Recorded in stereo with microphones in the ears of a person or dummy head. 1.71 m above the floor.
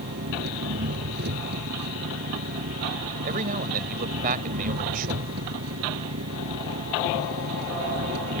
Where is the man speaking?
45° right (ahead or behind).